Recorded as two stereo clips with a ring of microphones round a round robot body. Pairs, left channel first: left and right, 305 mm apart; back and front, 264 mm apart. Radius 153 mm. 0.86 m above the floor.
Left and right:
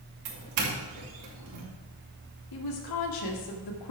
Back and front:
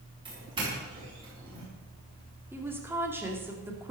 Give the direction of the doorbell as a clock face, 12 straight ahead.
2 o'clock.